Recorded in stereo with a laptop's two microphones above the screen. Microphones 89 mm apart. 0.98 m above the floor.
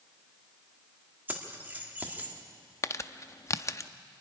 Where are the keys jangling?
20° right (ahead or behind), 1.5 m.